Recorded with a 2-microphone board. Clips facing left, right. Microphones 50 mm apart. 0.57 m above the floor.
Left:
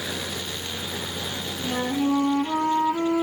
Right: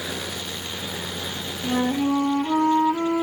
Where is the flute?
15° right (ahead or behind), 1.8 m.